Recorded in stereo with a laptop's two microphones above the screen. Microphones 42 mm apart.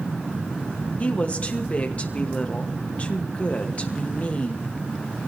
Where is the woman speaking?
35° left (ahead or behind), 1.4 m.